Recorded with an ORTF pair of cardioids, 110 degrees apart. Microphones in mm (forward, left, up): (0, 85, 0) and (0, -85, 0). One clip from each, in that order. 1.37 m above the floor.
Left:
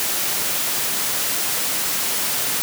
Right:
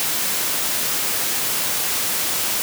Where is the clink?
I don't hear a clink.